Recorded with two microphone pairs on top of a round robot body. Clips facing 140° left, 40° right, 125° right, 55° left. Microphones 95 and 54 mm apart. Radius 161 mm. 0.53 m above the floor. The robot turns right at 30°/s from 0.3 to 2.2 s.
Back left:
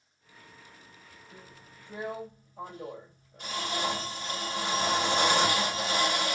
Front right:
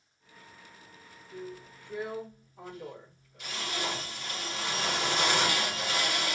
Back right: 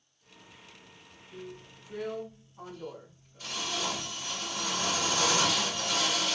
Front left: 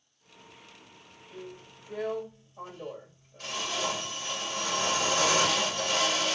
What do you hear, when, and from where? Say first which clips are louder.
1.3 s a drill: front right 13 dB, even; 60° left, 2.5 m; by 6.3 s 90° left, 2.5 m